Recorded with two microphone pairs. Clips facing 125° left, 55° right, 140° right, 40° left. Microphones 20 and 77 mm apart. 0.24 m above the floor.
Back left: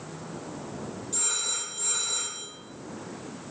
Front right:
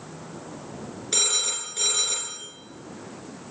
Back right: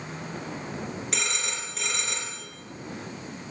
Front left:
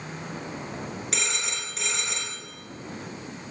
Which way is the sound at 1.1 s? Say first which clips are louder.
Front right 8 dB, front left 1 dB; 50° right.